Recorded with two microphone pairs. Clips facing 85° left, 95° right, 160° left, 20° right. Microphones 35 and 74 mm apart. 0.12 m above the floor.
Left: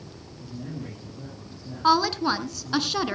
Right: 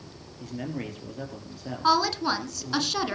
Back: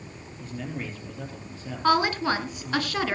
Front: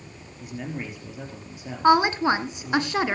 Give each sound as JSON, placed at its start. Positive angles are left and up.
{"t": 0.4, "sound": "a man speaking", "azimuth_deg": -95, "distance_m": 3.5}
{"t": 1.8, "sound": "a woman speaking", "azimuth_deg": 10, "distance_m": 1.4}